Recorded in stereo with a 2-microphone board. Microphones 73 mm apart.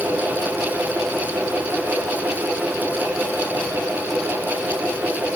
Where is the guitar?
I don't hear a guitar.